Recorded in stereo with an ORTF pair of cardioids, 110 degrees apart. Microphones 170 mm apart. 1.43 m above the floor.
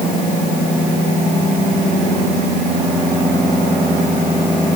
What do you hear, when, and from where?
Only background noise.